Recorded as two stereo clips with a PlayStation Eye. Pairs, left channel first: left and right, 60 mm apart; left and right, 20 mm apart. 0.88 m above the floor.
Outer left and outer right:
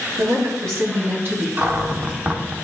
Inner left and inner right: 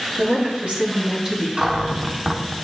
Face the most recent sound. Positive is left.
turn(degrees=-30)  # may be behind; listen again after turning